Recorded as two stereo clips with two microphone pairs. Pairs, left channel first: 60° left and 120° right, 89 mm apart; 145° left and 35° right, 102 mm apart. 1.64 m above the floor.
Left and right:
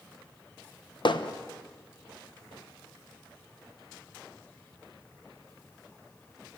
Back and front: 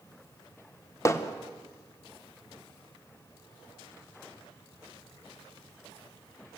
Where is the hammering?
85° left, 1.1 m.